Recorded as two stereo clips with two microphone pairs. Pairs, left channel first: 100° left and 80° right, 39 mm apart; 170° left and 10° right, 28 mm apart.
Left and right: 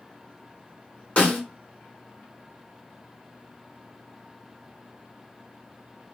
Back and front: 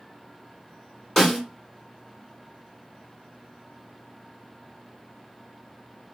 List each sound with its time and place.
1.2 s a snare drum: 100° left, 2.0 m